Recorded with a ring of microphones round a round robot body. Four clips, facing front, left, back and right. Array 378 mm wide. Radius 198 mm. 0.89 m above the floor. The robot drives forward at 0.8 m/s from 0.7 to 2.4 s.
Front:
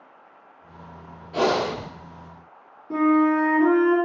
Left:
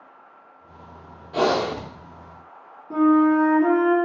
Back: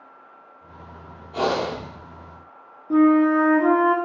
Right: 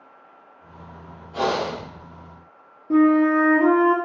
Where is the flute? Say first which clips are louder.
Right 1 dB, back 3 dB; 115° right, 1.2 m.